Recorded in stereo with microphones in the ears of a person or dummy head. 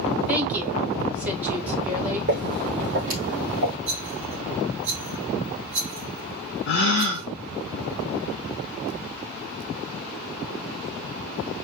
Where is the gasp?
55° left (ahead or behind), 0.8 m.